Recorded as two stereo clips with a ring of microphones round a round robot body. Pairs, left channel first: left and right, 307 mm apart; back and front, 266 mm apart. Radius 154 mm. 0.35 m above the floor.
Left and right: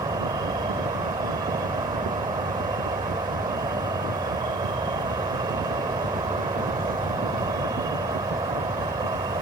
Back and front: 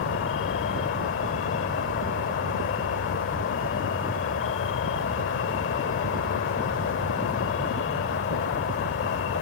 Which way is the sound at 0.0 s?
160° right.